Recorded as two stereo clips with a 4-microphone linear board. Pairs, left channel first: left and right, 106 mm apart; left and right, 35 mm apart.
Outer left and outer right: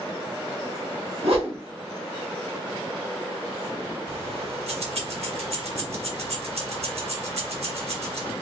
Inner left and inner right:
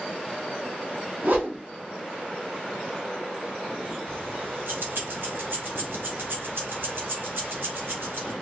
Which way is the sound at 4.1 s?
75° right (ahead or behind).